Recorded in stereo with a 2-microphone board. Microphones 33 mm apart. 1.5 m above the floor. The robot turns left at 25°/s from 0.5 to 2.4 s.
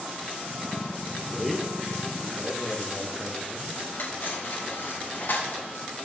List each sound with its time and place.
1.3 s a man speaking: 5° right (ahead or behind), 1.1 m; by 3.8 s 25° left (ahead or behind), 1.1 m
3.9 s cutlery clinking: 75° left (ahead or behind), 4 m